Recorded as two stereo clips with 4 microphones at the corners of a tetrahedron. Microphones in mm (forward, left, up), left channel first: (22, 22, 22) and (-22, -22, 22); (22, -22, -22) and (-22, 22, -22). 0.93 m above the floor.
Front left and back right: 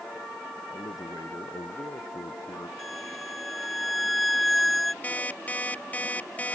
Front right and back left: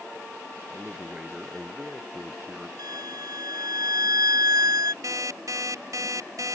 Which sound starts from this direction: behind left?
A violin, at 2.8 s.